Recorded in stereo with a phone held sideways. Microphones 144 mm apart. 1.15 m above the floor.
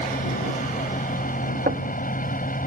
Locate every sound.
0.0 s a fan: 75° left (ahead or behind)
1.7 s knocking: 80° right